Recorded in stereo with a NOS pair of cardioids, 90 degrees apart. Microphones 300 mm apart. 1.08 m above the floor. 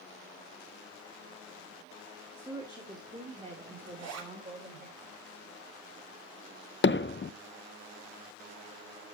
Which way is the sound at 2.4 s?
10° right.